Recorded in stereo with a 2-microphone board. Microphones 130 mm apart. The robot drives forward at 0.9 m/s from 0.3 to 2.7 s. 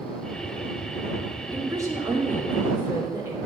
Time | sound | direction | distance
1.5 | a woman speaking | 30° right (ahead or behind) | 2 m